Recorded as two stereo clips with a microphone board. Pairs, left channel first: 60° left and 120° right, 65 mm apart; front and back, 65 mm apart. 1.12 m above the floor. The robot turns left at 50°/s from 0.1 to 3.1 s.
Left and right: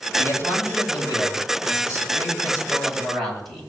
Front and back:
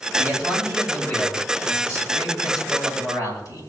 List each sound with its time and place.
0.1 s a man speaking: 120° left, 9 m; by 3.6 s 25° right, 9 m